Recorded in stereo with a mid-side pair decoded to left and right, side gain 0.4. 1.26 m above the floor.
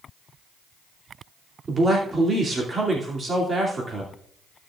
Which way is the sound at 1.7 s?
40° right.